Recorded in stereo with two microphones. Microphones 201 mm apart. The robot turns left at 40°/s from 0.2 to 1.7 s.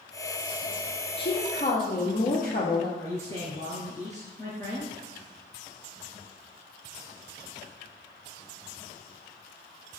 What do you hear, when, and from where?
1.2 s a woman speaking: 65° left (ahead or behind), 3 m; by 2.9 s 50° left (ahead or behind), 3 m
3.0 s a man speaking: 15° left (ahead or behind), 1.7 m